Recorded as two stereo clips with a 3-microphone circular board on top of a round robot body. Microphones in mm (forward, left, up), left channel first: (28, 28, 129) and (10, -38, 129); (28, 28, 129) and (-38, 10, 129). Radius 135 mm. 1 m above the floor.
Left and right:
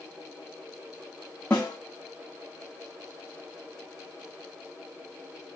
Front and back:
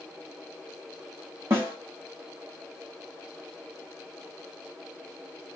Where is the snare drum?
145° left, 0.5 m.